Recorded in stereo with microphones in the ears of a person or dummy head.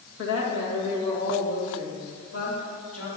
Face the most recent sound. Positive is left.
turn(degrees=85)